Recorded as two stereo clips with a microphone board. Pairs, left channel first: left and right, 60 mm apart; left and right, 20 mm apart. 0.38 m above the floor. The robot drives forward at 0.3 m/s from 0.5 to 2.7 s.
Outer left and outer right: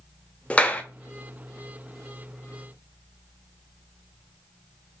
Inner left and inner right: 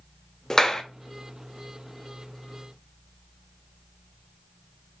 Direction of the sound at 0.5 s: 25° left (ahead or behind).